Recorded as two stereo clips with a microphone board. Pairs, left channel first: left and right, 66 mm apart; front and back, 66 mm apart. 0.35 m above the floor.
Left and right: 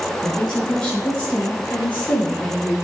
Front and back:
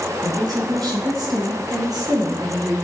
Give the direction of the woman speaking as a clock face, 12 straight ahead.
6 o'clock.